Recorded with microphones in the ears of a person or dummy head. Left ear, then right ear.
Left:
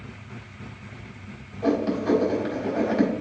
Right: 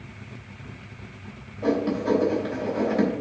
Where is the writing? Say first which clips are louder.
Even; centre (ahead or behind), 3.5 m.